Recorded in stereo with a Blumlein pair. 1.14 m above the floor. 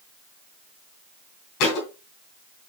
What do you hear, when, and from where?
1.6 s a thud: 40° left, 3 m